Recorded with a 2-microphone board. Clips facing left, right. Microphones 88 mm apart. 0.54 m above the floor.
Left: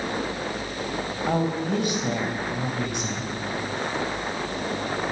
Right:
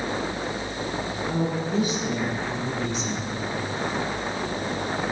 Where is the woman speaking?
60° left (ahead or behind), 4 m.